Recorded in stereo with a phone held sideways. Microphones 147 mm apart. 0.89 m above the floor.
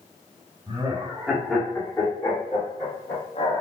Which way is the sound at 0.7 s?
35° right (ahead or behind).